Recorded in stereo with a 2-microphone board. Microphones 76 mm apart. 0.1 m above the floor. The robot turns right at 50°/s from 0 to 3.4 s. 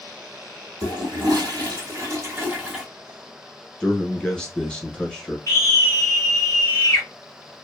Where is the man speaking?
10° left (ahead or behind), 1.1 m.